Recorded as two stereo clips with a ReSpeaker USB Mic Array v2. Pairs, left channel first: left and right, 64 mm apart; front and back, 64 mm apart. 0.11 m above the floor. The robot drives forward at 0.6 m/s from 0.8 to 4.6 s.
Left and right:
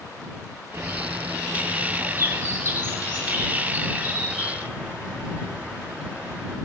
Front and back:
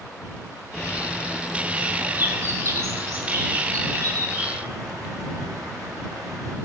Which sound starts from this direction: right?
A bird, at 0.7 s.